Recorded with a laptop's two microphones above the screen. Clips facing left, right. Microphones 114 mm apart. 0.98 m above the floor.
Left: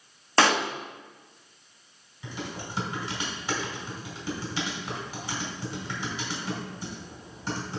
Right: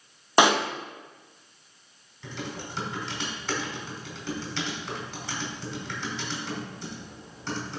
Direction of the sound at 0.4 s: 15° right (ahead or behind).